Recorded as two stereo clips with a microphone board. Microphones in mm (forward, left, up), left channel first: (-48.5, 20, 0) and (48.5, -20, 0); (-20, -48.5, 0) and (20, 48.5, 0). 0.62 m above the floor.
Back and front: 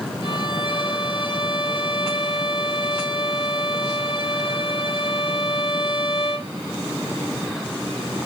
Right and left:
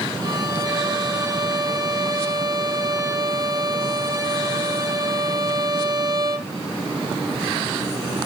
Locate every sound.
0.2 s a violin: 120° left, 3 m